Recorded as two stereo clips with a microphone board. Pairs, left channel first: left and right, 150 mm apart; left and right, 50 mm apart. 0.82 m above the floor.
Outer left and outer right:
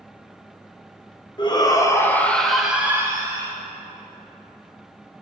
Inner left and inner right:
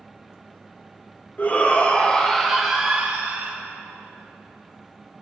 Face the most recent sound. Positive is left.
turn(degrees=-30)  # may be behind; listen again after turning